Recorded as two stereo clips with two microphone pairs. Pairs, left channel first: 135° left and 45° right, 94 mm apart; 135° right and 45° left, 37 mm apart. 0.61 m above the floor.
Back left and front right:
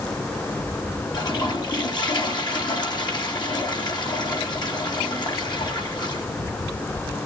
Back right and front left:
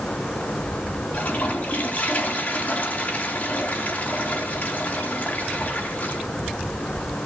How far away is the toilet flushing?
About 3.5 m.